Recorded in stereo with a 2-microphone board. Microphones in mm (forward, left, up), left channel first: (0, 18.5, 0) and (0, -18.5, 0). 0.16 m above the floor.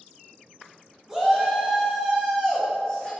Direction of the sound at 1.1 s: 15° right (ahead or behind).